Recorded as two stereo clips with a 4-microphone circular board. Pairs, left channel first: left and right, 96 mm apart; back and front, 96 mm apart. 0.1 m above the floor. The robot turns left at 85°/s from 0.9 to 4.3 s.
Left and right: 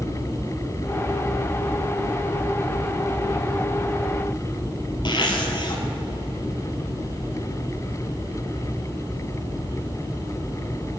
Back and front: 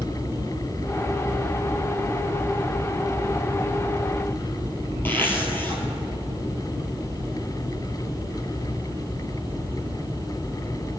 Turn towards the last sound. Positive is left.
turn(degrees=115)